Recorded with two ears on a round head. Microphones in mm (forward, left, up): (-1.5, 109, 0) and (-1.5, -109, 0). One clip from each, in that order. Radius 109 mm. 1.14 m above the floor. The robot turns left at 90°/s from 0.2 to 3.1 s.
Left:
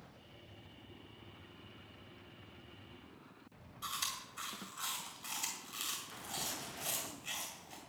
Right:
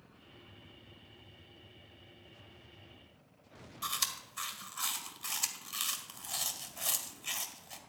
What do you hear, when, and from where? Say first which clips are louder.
3.8 s chewing: right 4 dB; 35° right (ahead or behind), 1.8 m